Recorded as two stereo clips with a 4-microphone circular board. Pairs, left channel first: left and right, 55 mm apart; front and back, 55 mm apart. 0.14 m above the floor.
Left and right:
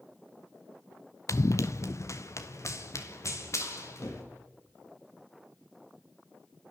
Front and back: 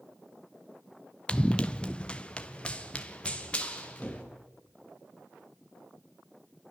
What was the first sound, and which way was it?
Running footsteps, 70° left.